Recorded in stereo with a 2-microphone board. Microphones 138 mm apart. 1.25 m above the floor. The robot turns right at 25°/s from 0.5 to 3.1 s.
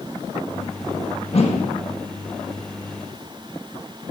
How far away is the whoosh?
About 1.5 m.